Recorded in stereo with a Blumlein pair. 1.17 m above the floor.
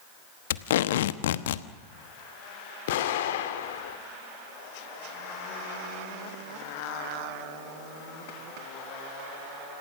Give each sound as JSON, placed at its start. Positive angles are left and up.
{"t": 0.5, "sound": "tape being pulled", "azimuth_deg": 60, "distance_m": 1.1}
{"t": 2.9, "sound": "an explosion", "azimuth_deg": 55, "distance_m": 2.5}